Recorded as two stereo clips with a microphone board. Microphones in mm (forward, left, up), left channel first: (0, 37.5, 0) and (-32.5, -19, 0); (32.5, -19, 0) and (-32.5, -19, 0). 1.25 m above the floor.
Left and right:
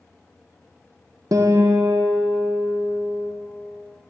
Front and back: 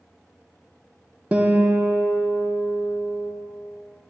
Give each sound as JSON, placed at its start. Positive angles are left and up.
{"t": 1.3, "sound": "a guitar", "azimuth_deg": -110, "distance_m": 0.5}